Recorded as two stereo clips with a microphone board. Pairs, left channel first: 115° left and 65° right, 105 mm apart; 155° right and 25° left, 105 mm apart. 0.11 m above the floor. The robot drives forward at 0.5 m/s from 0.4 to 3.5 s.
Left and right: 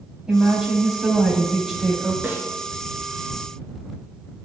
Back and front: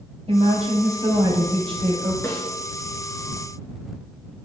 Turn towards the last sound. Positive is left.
turn(degrees=-150)